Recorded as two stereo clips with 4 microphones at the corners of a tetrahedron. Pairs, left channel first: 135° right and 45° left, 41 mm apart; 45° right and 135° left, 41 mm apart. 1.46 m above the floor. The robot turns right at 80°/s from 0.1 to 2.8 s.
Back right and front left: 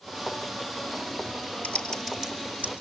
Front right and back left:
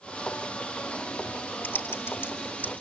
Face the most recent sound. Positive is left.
turn(degrees=15)